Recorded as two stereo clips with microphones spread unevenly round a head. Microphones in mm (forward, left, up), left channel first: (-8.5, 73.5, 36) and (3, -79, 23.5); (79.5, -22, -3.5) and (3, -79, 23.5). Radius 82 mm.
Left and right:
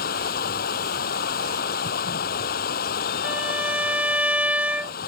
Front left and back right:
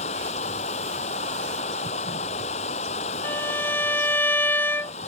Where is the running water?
60° left.